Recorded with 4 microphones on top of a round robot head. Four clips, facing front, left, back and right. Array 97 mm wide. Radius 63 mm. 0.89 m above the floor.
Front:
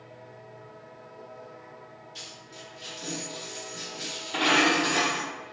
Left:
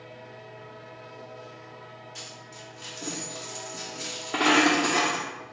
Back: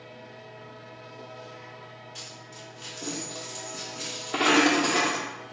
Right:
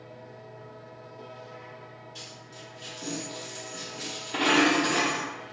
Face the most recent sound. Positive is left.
turn(degrees=130)